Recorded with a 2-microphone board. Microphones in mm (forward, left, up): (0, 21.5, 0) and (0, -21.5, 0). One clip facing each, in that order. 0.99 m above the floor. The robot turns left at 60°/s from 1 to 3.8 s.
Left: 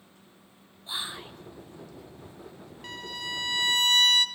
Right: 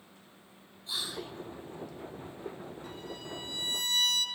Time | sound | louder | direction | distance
0.9 | whispering | left 2 dB | 25° left (ahead or behind) | 0.9 m
2.8 | a violin | left 10 dB | 115° left | 0.9 m